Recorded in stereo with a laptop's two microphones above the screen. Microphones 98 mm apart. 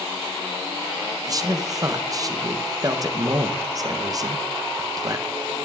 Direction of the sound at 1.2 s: 35° right (ahead or behind).